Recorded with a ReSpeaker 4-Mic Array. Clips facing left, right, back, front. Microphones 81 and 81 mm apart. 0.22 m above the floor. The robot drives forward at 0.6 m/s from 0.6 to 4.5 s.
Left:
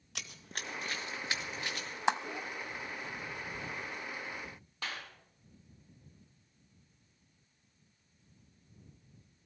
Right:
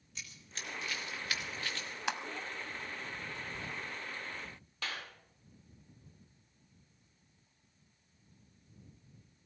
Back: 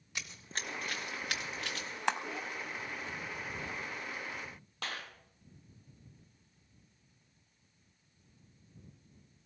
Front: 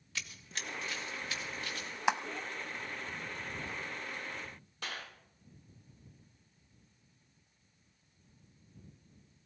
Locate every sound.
0.1 s running footsteps: 105° left, 1.0 m; by 2.0 s 165° left, 3 m
2.1 s a clap: 70° left, 0.9 m; by 2.2 s 80° left, 0.8 m
4.8 s a clap: 165° left, 6 m